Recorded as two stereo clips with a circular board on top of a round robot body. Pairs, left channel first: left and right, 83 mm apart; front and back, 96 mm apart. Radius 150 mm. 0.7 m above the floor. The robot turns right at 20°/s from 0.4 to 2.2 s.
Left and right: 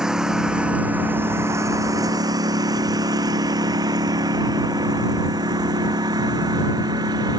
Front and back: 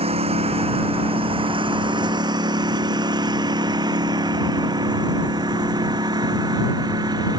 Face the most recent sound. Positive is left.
turn(degrees=-135)